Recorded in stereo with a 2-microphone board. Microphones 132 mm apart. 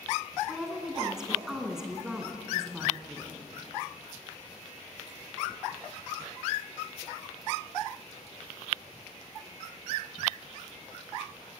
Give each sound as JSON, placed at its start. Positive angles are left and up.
{"t": 0.5, "sound": "a woman speaking", "side_deg": -5, "distance_m": 3.0}